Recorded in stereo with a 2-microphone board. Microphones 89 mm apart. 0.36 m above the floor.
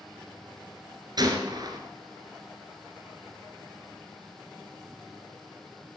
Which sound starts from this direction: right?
A gunshot, at 1.2 s.